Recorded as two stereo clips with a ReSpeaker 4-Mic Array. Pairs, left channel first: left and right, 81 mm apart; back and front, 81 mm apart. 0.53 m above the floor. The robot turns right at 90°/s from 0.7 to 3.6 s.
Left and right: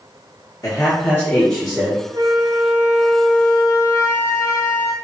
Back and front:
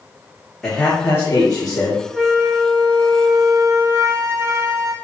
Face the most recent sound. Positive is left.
turn(degrees=45)